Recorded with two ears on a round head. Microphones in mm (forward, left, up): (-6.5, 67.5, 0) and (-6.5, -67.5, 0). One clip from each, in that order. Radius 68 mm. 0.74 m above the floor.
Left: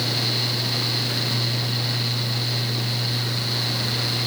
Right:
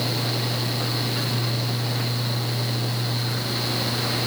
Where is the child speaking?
I don't hear a child speaking.